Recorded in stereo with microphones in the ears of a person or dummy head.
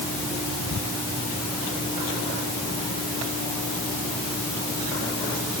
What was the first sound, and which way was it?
Only background noise.